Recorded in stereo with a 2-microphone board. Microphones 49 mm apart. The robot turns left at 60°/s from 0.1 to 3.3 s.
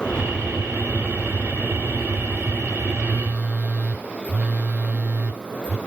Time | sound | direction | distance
2.9 | a phone buzzing | 10° right (ahead or behind) | 1.1 m